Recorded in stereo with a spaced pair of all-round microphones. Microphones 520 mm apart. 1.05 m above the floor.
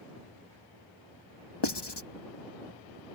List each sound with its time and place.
1.6 s writing: 55° left (ahead or behind)